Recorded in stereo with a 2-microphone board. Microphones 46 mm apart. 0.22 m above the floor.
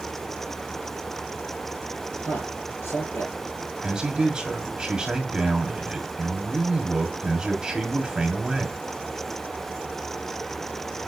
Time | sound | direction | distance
2.2 | a man speaking | 70° left (ahead or behind) | 4 m
3.8 | a man speaking | 20° right (ahead or behind) | 1.3 m